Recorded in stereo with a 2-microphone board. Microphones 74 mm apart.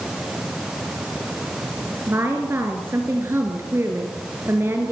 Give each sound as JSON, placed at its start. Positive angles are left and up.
{"t": 2.1, "sound": "a woman speaking", "side_deg": -35, "distance_m": 2.5}